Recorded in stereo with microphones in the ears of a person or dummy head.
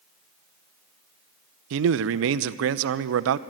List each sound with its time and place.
1.7 s a man speaking: 70° right (ahead or behind), 0.6 m